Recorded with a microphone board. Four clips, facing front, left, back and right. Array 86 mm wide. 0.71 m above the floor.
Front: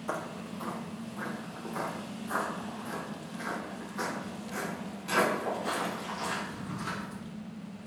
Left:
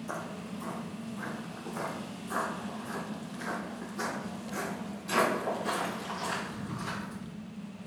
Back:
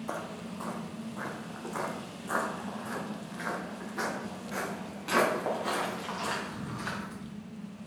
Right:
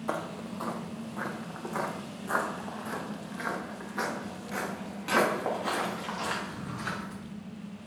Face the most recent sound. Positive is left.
turn(degrees=-115)